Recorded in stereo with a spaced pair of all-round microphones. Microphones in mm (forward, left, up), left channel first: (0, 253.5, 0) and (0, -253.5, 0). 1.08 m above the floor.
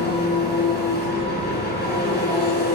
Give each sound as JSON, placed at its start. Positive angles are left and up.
{"t": 0.0, "sound": "an engine running", "side_deg": 20, "distance_m": 4.0}